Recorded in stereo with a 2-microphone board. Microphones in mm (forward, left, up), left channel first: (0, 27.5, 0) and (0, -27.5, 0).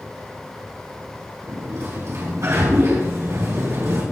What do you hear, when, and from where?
1.4 s a sliding door: 60° right (ahead or behind), 5 m